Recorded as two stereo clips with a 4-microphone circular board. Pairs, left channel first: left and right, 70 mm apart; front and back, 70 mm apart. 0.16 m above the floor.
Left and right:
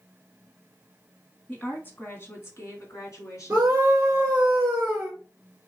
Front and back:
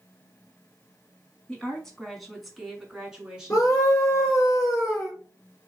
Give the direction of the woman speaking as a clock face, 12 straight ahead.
10 o'clock.